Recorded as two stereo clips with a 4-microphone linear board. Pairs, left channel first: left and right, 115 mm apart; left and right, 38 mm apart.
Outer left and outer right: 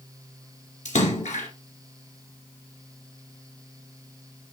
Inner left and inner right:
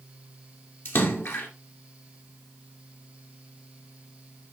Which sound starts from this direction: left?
A splash, at 0.8 s.